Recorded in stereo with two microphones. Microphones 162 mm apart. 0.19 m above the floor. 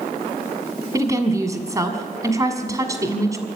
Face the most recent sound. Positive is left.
turn(degrees=-20)  # may be behind; listen again after turning